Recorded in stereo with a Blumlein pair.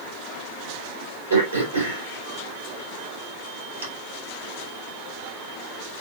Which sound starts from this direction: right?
Throat clearing, at 1.3 s.